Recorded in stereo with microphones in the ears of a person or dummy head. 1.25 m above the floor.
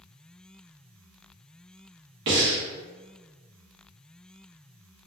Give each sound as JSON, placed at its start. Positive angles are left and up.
{"t": 2.3, "sound": "breathing", "side_deg": -55, "distance_m": 0.7}